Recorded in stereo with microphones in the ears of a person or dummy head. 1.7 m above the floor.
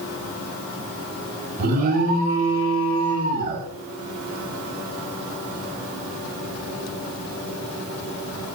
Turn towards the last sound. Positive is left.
turn(degrees=-40)  # may be behind; listen again after turning